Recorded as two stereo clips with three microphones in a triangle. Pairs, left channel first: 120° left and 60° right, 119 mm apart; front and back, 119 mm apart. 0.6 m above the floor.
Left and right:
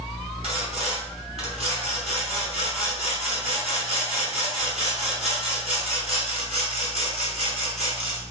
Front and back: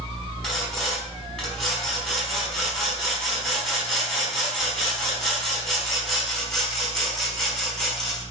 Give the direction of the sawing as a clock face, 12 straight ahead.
3 o'clock.